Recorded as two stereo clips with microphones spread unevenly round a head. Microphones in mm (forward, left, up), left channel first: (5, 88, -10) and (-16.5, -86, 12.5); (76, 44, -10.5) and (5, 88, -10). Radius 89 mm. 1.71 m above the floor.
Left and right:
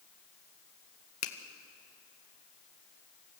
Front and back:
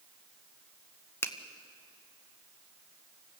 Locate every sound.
1.2 s a finger snap: 30° left, 1.5 m